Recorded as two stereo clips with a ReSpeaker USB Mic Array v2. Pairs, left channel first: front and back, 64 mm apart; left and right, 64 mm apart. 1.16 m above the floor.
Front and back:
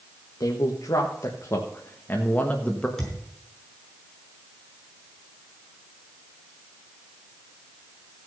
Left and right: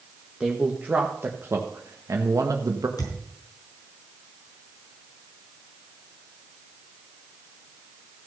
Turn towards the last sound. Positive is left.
turn(degrees=85)